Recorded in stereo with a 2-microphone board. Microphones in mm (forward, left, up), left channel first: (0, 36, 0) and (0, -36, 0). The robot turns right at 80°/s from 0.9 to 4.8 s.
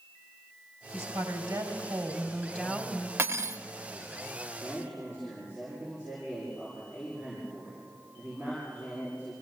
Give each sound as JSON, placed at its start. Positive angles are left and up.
{"t": 0.9, "sound": "a woman speaking", "azimuth_deg": -125, "distance_m": 2.5}
{"t": 3.2, "sound": "cutlery clinking", "azimuth_deg": -125, "distance_m": 0.6}
{"t": 4.5, "sound": "a man speaking", "side_deg": -10, "distance_m": 7.0}